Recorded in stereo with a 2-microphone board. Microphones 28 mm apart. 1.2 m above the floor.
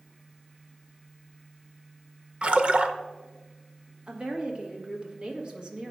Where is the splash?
45° right (ahead or behind), 0.6 m.